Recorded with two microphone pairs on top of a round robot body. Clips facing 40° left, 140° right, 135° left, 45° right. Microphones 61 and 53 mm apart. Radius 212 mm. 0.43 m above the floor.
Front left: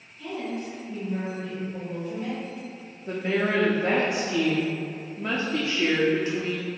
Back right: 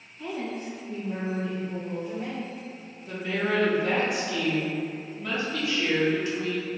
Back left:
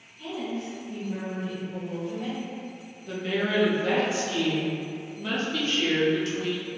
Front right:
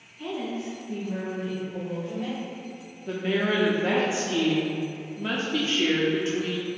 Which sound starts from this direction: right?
A woman speaking, at 0.2 s.